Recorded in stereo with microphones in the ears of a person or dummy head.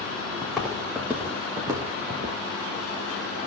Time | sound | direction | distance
0.4 | footsteps | centre (ahead or behind) | 4.5 m